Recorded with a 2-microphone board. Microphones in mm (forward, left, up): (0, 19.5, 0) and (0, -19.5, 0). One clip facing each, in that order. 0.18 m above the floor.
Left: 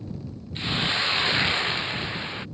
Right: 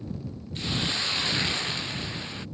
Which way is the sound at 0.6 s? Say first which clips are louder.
Left 4 dB; 20° left (ahead or behind).